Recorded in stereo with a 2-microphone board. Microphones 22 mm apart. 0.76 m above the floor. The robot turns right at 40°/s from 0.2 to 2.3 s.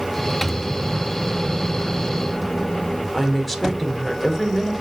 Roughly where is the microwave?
Ahead.